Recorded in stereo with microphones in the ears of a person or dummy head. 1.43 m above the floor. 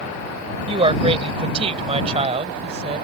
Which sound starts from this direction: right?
A woman speaking, at 0.7 s.